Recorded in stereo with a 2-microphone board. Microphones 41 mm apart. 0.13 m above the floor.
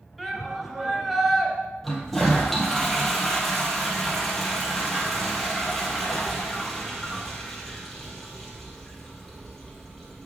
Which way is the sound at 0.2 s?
5° right (ahead or behind).